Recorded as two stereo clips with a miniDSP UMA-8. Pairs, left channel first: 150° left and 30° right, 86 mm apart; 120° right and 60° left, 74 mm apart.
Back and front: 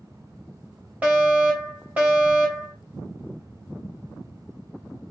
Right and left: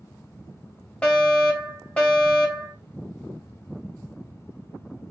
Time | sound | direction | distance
1.0 | a fire alarm | 75° right | 2.5 m